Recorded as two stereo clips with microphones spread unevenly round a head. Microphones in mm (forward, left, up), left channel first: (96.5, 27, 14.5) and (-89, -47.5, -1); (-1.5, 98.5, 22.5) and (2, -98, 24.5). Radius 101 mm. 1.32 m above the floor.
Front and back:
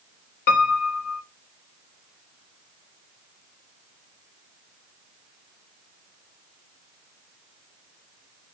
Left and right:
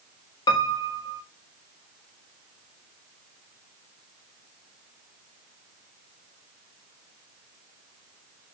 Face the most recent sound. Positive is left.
turn(degrees=25)